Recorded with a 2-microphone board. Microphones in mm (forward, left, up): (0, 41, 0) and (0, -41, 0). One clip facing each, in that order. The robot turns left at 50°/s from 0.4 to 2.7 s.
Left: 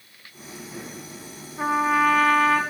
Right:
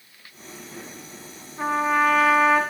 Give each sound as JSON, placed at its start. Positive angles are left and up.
{"t": 1.6, "sound": "a trumpet", "side_deg": 5, "distance_m": 0.8}